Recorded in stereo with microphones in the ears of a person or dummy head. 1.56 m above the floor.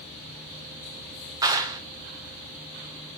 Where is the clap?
25° right (ahead or behind), 0.9 m.